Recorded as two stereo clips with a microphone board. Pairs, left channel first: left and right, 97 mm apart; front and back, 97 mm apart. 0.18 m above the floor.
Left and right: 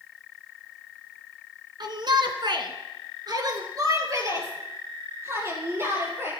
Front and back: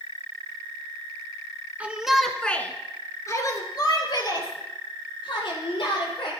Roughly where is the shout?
Right.